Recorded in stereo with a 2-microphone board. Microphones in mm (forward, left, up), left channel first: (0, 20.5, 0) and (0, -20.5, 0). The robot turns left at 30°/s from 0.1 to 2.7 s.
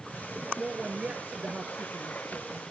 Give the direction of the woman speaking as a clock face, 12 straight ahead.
12 o'clock.